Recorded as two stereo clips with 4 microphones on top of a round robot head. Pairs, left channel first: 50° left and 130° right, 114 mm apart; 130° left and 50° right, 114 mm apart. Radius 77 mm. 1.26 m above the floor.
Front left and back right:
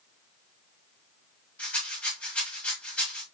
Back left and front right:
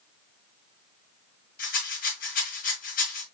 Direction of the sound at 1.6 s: 130° left.